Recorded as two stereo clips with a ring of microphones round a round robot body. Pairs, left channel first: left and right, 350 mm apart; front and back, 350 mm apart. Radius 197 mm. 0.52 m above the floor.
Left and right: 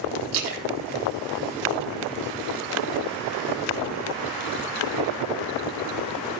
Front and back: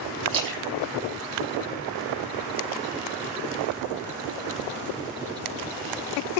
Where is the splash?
130° right, 7.5 m.